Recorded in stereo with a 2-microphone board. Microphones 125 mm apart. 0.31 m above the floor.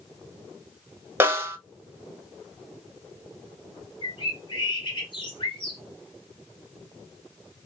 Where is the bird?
40° left (ahead or behind), 1.9 m.